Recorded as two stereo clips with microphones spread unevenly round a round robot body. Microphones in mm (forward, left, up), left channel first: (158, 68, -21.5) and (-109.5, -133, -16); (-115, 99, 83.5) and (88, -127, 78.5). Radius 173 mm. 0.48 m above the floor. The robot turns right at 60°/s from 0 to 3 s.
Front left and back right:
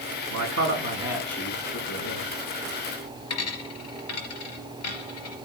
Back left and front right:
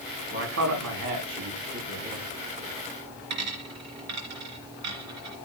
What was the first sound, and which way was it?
A man speaking, 110° right.